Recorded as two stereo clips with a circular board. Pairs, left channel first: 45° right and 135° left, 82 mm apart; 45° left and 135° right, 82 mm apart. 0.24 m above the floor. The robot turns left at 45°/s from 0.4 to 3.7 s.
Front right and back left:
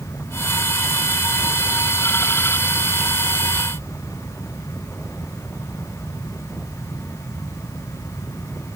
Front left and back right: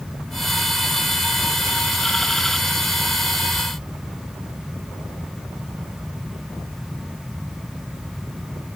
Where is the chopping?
I don't hear chopping.